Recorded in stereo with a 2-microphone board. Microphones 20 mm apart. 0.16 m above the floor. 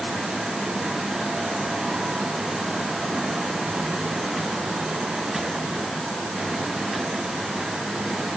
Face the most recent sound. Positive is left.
No sound to turn to.